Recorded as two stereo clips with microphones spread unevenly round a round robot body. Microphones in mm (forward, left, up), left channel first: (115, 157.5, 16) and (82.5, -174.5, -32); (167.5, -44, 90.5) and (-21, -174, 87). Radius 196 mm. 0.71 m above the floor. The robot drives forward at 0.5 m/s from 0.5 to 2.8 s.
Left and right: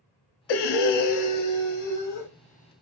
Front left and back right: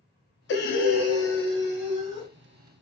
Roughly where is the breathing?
Left.